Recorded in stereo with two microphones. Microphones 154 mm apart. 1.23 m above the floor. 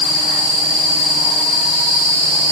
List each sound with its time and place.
Only background noise.